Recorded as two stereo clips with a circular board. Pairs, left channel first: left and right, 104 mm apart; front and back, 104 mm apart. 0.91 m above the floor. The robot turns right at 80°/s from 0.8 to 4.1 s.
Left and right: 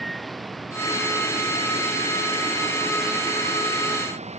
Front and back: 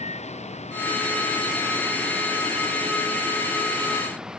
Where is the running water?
Straight ahead; by 4.4 s 95° right.